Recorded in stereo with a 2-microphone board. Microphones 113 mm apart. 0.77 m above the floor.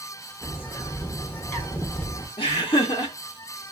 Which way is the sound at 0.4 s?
20° left (ahead or behind).